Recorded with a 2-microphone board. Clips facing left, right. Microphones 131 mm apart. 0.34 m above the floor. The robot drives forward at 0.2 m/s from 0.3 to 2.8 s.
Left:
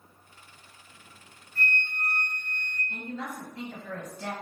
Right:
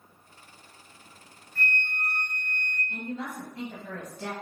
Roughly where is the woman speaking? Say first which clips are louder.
Right 1 dB; right.